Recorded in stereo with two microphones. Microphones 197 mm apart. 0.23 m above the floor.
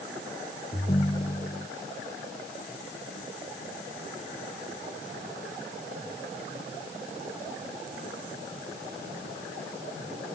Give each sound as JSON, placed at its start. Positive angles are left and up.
{"t": 0.7, "sound": "a ringtone", "side_deg": 30}